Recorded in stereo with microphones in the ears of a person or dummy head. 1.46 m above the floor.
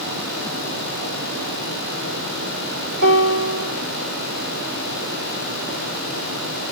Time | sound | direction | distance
3.0 | a piano | 75° right (ahead or behind) | 5 m